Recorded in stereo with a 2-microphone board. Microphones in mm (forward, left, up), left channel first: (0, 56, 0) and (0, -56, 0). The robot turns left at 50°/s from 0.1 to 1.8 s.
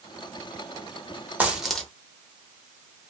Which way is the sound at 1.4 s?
15° right (ahead or behind).